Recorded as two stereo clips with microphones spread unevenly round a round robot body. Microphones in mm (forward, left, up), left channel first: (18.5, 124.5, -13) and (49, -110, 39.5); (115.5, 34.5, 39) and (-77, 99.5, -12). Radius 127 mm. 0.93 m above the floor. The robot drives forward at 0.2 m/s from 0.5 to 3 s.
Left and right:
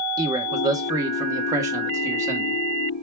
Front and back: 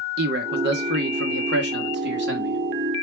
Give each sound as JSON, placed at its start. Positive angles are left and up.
{"t": 0.2, "sound": "a man speaking", "azimuth_deg": -160, "distance_m": 1.6}